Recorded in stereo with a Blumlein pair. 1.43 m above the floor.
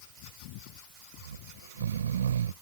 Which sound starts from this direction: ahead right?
Snoring, at 1.2 s.